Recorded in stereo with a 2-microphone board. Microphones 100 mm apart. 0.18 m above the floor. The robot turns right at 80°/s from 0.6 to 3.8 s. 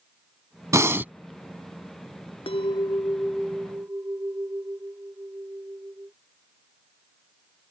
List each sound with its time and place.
0.7 s breathing: 60° right; by 1.1 s 25° right
2.5 s a clink: 100° left; by 6.1 s 150° right